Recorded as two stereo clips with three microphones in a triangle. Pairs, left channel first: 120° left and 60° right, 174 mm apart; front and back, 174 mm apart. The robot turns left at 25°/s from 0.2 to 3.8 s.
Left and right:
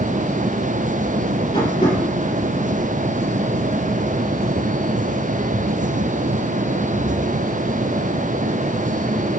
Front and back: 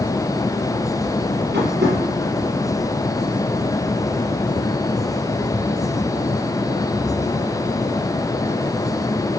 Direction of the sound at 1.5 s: 175° right.